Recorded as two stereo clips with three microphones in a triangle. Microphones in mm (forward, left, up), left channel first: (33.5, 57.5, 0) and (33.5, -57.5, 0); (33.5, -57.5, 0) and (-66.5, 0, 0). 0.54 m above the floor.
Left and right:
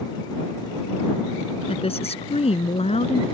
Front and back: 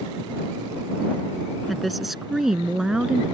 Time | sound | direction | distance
1.7 | a woman speaking | 60° left | ?